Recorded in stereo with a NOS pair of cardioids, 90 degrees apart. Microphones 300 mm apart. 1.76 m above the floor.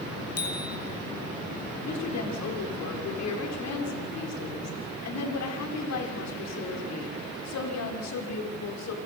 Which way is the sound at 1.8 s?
60° left.